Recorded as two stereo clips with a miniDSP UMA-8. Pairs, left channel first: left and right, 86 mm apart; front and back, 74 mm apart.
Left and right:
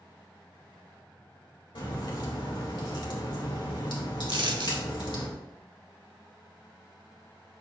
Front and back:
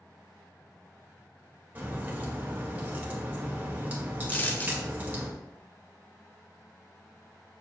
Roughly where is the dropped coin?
Ahead right.